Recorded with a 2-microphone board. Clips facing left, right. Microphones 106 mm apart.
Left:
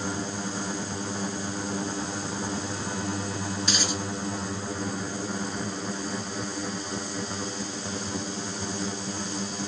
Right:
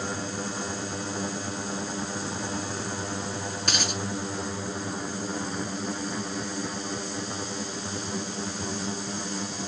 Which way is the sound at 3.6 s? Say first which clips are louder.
Left 1 dB; 65° right (ahead or behind).